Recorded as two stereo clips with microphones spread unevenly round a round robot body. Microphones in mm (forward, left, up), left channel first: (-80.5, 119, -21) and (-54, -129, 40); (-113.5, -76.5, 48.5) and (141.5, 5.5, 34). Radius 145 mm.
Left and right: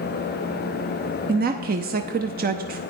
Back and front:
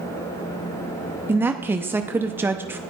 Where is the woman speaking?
45° right, 0.8 m.